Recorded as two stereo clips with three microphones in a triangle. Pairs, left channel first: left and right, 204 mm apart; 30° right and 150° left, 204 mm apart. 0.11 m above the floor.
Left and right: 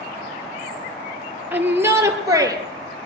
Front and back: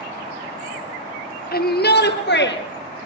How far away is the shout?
About 3 m.